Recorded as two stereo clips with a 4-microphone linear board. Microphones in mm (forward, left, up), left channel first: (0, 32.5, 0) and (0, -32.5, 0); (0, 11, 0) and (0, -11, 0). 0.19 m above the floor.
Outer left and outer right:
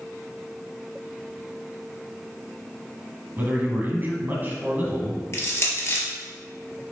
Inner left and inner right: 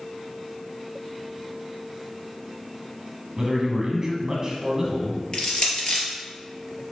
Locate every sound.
3.4 s a man speaking: 25° right (ahead or behind), 1.5 m
5.3 s crushing: 40° left (ahead or behind), 1.9 m